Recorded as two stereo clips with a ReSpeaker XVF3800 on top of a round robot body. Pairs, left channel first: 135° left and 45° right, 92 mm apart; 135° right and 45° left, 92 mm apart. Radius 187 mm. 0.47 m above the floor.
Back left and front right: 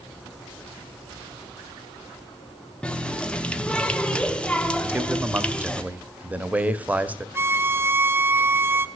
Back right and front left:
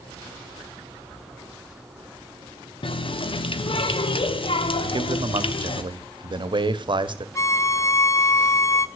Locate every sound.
2.8 s a running tap: 145° right, 1.0 m
4.8 s a man speaking: 30° left, 1.1 m
7.3 s a violin: 95° right, 0.7 m